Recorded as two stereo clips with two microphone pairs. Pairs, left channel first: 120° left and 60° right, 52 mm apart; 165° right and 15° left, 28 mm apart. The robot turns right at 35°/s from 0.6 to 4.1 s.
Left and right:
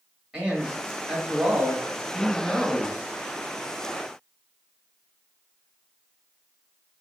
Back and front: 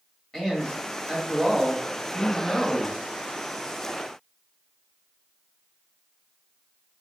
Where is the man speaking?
110° right, 1.1 m; by 3.0 s 30° right, 1.1 m.